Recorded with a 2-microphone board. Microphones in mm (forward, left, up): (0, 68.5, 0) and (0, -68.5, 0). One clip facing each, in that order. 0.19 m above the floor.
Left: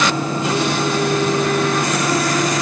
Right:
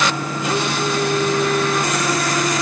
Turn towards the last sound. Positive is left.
No sound to turn to.